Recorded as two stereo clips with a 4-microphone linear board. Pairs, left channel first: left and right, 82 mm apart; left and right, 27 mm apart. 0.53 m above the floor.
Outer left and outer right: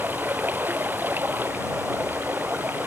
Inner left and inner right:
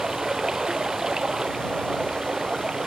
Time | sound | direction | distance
0.0 | running water | 25° right (ahead or behind) | ?